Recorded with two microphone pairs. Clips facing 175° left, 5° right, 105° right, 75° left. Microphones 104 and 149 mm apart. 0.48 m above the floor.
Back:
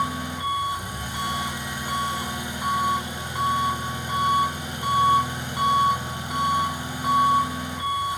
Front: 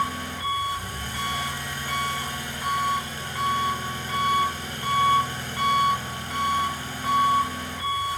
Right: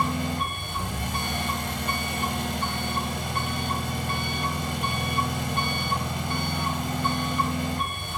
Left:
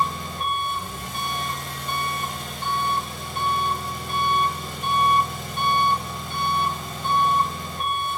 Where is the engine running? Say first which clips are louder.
Back 1 dB, even; 110° right, 1.9 m.